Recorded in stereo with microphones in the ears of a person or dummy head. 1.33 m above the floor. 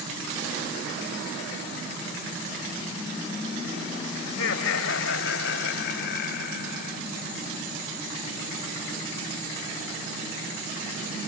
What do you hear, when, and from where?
4.3 s laughter: 85° left; by 7.0 s 65° left (ahead or behind)